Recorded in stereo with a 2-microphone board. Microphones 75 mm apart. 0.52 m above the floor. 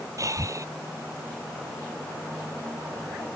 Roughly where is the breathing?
Right.